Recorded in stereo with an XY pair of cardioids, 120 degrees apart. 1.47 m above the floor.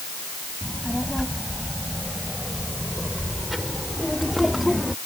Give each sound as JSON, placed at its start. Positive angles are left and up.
{"t": 0.6, "sound": "a child speaking", "azimuth_deg": 0}